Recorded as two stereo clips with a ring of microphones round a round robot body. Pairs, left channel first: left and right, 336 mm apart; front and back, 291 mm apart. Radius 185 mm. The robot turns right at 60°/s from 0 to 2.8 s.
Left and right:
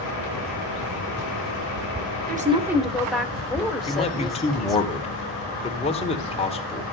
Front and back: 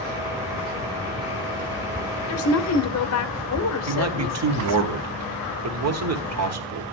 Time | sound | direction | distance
2.3 | a woman speaking | 30° right | 1.3 m
3.9 | a man speaking | 160° left | 1.6 m